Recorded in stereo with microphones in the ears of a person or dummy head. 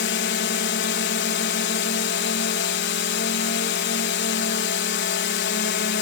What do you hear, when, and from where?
0.0 s a drone: 55° left (ahead or behind)